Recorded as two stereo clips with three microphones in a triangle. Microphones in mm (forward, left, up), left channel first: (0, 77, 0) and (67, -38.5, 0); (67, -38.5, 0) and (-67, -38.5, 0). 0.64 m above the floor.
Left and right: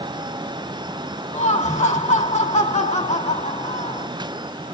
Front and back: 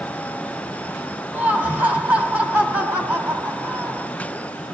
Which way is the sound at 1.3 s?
105° left.